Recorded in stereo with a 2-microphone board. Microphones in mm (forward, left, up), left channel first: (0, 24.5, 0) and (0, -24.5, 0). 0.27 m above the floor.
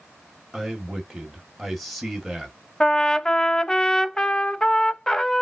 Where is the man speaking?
Centre (ahead or behind), 1.5 m.